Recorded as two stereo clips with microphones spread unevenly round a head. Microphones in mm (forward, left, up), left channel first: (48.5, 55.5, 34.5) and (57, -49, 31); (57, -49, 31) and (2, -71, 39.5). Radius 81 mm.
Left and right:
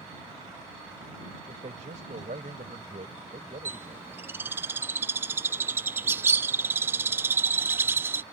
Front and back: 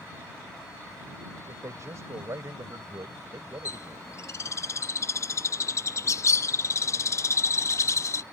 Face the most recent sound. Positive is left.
turn(degrees=-15)